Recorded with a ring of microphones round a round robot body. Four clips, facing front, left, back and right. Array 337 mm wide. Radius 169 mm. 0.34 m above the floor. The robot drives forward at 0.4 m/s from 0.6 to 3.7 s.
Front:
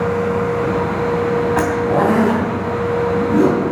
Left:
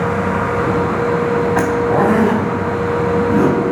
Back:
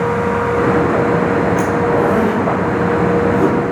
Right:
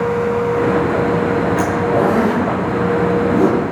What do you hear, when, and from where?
1.6 s a zipper: 60° left, 3 m; by 3.6 s 75° left, 3 m